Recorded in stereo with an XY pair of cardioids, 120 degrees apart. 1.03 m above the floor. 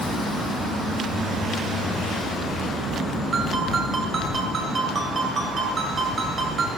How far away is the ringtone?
About 2.5 m.